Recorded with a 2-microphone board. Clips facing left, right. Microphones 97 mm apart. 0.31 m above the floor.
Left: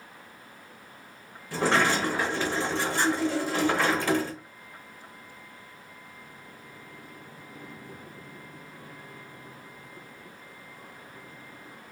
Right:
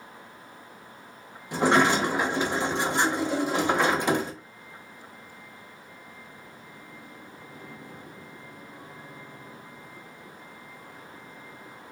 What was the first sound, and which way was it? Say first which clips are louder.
A sliding door: right 3 dB; 20° right (ahead or behind).